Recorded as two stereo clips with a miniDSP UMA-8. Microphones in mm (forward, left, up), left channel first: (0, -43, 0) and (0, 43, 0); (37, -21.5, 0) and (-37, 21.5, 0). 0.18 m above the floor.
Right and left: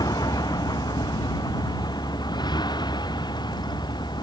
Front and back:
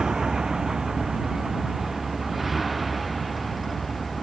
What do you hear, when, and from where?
0.0 s a vehicle: 125° right; by 4.2 s 120° right